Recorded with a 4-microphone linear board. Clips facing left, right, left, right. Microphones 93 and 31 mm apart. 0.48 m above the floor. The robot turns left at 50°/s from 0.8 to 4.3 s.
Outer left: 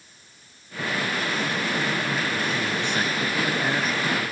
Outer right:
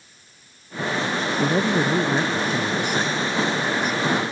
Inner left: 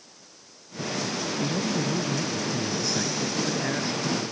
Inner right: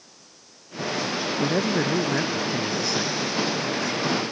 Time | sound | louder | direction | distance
1.4 | a man speaking | outer right 6 dB, inner right 5 dB | 95° right | ?